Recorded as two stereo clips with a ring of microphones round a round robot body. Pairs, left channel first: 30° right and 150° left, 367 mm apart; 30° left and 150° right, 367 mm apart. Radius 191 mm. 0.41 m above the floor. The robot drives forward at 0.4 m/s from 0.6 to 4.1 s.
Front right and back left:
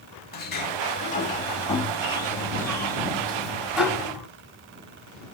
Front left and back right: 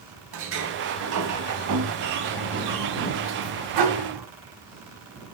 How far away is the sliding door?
About 2.5 m.